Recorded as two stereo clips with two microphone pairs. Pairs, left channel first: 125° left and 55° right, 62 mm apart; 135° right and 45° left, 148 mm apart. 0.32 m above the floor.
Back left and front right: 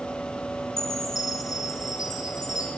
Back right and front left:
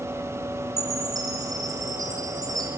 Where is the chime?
110° left, 1.5 m.